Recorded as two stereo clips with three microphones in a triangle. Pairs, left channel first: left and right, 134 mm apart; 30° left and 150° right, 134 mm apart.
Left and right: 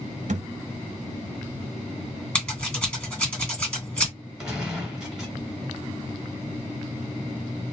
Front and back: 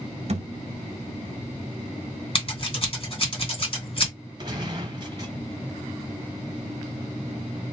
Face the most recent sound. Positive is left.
turn(degrees=-170)